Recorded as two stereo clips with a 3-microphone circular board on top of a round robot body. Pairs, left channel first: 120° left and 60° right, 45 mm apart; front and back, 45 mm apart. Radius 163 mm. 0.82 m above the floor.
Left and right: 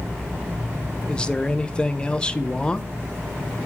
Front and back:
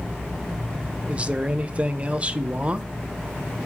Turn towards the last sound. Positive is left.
turn(degrees=165)